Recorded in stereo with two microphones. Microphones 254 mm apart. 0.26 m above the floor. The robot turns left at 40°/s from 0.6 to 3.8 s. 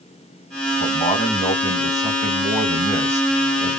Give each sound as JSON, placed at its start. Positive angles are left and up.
{"t": 0.8, "sound": "a man speaking", "azimuth_deg": 70, "distance_m": 1.2}